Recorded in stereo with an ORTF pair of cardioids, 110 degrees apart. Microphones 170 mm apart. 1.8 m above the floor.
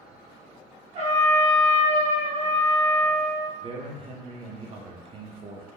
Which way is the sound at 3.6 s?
35° right.